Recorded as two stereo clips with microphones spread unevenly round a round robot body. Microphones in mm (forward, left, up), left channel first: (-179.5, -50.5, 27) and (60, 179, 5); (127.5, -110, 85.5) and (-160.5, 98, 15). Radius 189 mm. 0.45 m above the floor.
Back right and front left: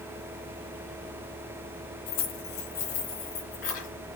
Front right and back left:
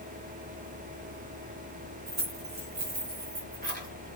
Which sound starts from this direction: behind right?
Keys jangling, at 2.1 s.